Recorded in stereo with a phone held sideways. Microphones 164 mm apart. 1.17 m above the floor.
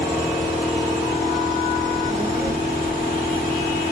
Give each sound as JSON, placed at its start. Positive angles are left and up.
{"t": 0.0, "sound": "a machine running", "side_deg": -25, "distance_m": 5.0}
{"t": 1.8, "sound": "a child speaking", "side_deg": -75, "distance_m": 1.8}